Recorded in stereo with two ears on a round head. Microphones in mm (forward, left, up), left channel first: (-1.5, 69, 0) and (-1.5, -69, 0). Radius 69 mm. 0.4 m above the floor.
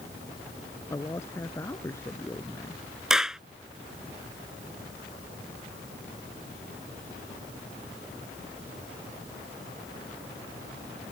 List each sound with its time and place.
0.9 s a man speaking: 20° left (ahead or behind)
3.1 s a clap: 5° right (ahead or behind)